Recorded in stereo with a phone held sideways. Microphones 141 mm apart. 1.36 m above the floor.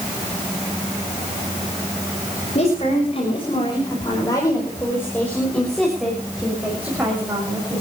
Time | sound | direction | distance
2.5 | a woman speaking | 50° left (ahead or behind) | 6.5 m